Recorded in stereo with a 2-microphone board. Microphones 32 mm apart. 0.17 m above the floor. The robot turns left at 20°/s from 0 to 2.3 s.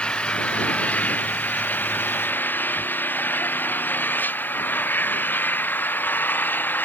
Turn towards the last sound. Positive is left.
turn(degrees=100)